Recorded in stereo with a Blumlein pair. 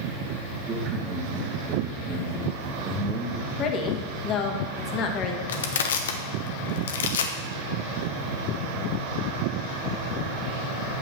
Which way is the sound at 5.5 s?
60° left.